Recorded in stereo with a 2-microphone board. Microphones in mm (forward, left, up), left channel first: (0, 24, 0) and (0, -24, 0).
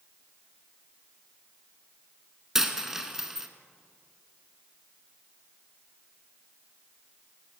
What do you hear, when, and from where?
2.5 s a dropped coin: 10° right (ahead or behind), 0.6 m